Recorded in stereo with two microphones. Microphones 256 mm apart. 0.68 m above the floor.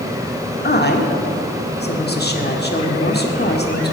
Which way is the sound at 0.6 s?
40° left (ahead or behind).